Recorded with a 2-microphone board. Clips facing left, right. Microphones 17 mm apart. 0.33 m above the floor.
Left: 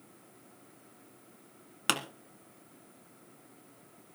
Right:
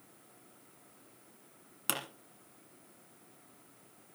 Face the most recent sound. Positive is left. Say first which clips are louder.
# left 7 dB
turn(degrees=30)  # may be behind; listen again after turning